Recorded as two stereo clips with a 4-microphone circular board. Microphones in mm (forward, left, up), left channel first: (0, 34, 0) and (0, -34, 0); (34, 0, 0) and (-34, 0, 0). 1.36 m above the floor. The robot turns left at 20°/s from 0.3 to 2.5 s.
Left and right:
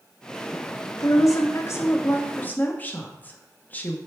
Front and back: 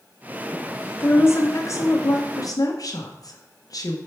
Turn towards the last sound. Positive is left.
turn(degrees=25)